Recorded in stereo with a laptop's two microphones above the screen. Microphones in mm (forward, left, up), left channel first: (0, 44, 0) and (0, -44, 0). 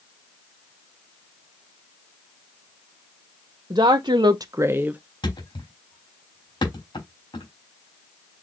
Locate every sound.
3.7 s a woman speaking: 65° right (ahead or behind), 0.7 m; by 5.0 s 15° right (ahead or behind), 0.8 m
5.2 s a thud: 65° left (ahead or behind), 3.5 m